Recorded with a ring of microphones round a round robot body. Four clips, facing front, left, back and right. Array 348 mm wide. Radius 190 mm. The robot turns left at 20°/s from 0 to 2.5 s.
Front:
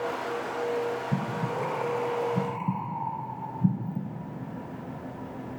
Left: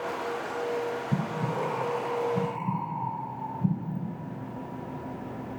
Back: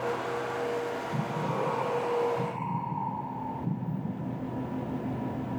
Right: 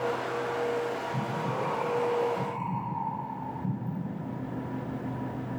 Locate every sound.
1.1 s breathing: 50° left, 4.5 m; by 4.0 s 25° left, 4.5 m